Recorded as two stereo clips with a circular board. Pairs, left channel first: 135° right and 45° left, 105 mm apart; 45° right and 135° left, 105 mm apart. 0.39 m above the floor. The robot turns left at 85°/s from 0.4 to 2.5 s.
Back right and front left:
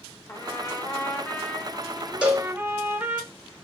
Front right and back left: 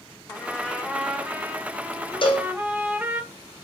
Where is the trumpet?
95° right, 1.0 m; by 3.2 s 85° left, 1.0 m.